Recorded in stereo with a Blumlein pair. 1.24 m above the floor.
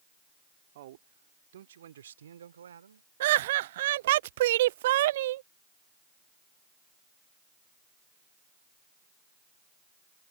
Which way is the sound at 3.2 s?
55° right.